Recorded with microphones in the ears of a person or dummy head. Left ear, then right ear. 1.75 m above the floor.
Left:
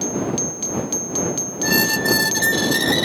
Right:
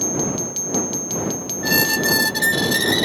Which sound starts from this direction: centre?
A squeak, at 1.6 s.